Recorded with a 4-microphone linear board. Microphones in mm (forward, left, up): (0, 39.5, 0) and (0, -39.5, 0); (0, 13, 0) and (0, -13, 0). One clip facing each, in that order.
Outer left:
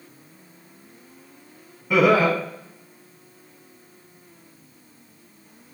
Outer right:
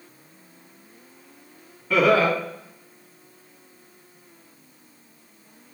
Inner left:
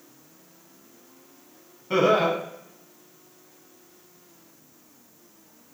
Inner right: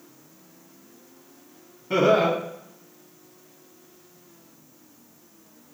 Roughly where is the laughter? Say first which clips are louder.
Outer left 1 dB, inner right 1 dB; centre.